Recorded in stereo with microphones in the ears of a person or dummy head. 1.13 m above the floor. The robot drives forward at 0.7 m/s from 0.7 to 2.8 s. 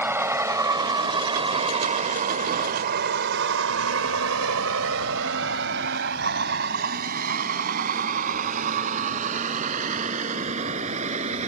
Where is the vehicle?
15° right (ahead or behind); by 11.5 s 35° right (ahead or behind).